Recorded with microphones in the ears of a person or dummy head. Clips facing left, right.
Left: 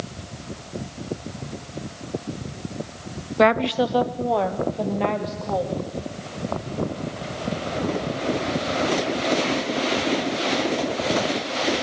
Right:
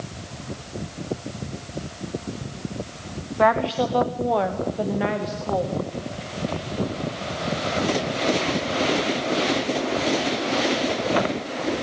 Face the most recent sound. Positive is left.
turn(degrees=-10)  # may be behind; listen again after turning